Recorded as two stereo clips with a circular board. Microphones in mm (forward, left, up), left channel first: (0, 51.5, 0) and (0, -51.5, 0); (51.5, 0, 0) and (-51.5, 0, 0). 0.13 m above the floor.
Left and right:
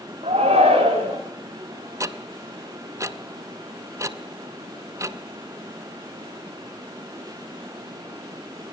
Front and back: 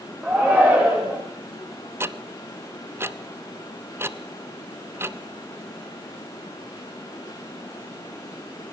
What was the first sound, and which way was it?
A shout, 100° right.